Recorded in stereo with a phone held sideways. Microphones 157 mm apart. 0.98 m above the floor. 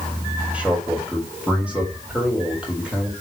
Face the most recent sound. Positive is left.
turn(degrees=-5)  # may be behind; listen again after turning